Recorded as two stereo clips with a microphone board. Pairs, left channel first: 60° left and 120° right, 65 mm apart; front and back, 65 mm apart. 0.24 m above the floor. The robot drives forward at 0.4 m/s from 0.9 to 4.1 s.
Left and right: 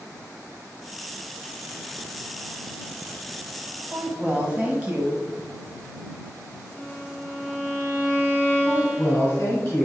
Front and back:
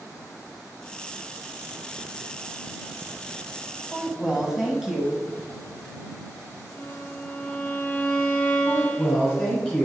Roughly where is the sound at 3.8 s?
Right.